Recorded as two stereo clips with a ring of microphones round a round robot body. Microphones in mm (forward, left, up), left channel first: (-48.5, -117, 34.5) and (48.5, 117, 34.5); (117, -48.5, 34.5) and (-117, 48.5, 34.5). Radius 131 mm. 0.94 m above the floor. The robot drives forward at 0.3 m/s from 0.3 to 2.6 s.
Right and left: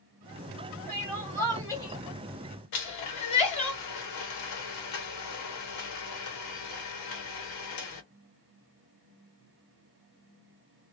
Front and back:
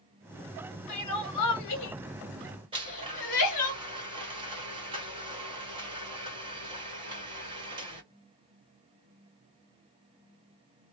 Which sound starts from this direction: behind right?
A blender, at 2.7 s.